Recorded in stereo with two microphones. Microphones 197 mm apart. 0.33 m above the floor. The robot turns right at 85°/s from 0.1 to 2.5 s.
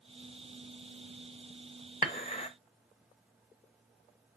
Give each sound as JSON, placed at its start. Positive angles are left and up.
{"t": 2.0, "sound": "dishes clattering", "side_deg": 45, "distance_m": 0.8}